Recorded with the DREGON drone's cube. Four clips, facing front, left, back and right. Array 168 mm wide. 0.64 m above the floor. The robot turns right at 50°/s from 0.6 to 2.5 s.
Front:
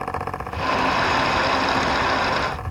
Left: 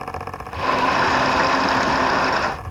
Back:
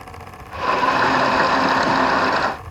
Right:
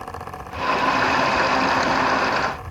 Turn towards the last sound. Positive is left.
No sound to turn to.